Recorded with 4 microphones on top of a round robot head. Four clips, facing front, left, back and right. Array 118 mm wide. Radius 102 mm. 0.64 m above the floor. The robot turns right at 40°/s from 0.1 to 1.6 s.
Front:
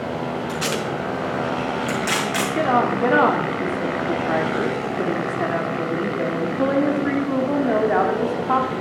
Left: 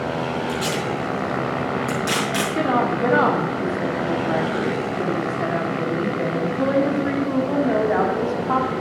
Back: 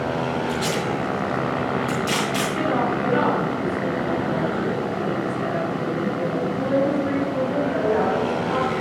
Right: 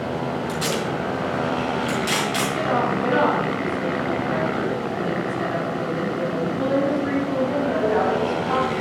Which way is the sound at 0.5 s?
15° right.